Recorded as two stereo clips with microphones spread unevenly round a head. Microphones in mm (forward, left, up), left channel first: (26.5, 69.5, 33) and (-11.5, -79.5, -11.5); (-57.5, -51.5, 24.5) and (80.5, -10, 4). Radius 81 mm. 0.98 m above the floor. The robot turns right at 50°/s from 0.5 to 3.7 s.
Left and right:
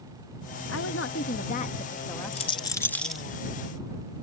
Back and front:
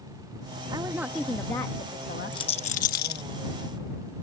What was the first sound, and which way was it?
A woman speaking, 80° left.